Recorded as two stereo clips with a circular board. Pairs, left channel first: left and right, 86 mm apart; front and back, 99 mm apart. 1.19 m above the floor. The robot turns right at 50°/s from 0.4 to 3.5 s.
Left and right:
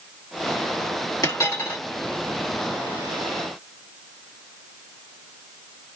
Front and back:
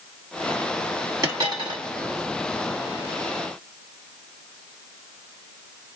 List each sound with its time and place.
1.2 s a dropped coin: 130° left, 1.8 m; by 1.8 s 160° left, 1.8 m